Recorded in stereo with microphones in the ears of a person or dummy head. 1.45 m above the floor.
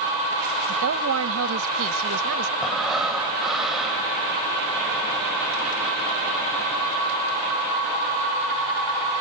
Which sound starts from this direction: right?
A woman speaking, at 0.7 s.